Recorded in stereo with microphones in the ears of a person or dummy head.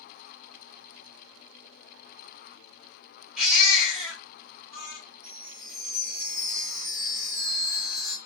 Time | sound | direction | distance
3.4 | a baby crying | centre (ahead or behind) | 1.7 m
5.2 | a chime | 10° right (ahead or behind) | 1.4 m